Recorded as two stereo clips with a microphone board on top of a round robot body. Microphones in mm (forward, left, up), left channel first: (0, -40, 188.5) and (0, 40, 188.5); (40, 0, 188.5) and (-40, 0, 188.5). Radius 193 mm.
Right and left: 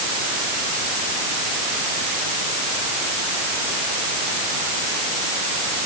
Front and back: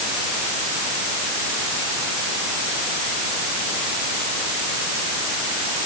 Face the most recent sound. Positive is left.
No sound to turn to.